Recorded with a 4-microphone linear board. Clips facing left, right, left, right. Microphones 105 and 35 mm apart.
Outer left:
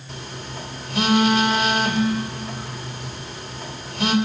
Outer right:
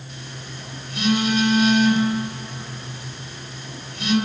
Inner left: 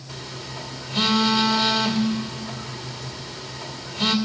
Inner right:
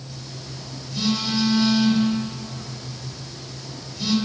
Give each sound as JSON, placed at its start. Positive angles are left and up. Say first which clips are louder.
{"t": 0.1, "sound": "a phone buzzing", "louder": "outer left 6 dB, inner left 6 dB", "side_deg": 80, "distance_m": 2.5}